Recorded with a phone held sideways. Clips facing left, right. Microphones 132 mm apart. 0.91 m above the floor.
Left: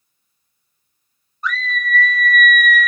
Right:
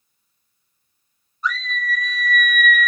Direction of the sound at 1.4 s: 55° left (ahead or behind).